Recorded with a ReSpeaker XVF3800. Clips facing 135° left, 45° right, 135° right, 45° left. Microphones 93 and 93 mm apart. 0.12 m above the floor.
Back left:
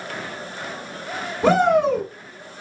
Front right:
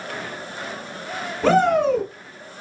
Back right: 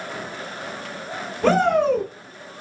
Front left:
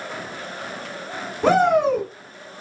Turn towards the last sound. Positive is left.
turn(degrees=90)